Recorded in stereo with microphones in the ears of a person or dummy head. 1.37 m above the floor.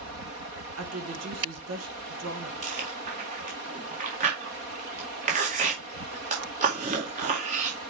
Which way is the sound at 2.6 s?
40° right (ahead or behind).